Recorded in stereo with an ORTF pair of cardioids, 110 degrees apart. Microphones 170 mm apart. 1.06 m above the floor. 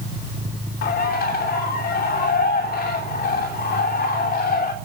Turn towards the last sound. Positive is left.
turn(degrees=65)